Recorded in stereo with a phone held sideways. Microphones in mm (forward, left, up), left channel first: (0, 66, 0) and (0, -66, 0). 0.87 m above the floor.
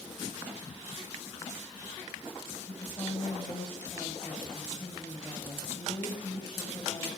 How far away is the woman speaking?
About 5.5 m.